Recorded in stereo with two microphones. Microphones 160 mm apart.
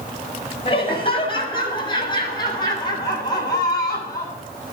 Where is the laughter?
35° left (ahead or behind), 6 m; by 4.4 s 25° left (ahead or behind), 8 m.